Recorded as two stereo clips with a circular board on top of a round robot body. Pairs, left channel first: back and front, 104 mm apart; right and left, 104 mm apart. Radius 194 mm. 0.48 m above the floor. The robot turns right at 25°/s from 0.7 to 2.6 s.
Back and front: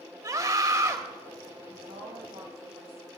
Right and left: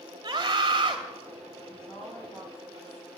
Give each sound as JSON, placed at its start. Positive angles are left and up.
{"t": 0.2, "sound": "a scream", "azimuth_deg": 45, "distance_m": 1.2}
{"t": 1.7, "sound": "a woman speaking", "azimuth_deg": -10, "distance_m": 4.0}